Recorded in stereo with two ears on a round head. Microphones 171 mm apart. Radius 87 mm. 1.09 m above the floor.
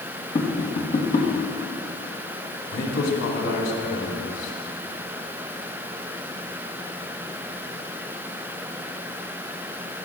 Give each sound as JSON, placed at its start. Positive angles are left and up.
{"t": 0.3, "sound": "tapping", "side_deg": 35, "distance_m": 1.3}
{"t": 2.7, "sound": "a man speaking", "side_deg": 75, "distance_m": 2.5}